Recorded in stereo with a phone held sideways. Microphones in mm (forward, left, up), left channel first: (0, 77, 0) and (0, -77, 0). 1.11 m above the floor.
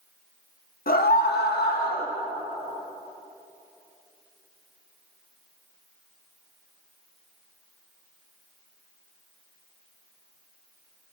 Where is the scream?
65° left (ahead or behind), 0.9 m; by 2.1 s 70° left (ahead or behind), 1.2 m.